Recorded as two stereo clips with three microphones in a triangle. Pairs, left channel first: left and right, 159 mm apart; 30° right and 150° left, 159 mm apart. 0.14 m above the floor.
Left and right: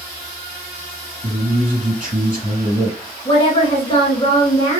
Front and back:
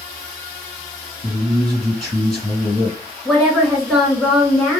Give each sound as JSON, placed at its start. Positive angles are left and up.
{"t": 1.2, "sound": "a man speaking", "azimuth_deg": -115, "distance_m": 2.5}
{"t": 3.2, "sound": "a woman speaking", "azimuth_deg": 60, "distance_m": 1.4}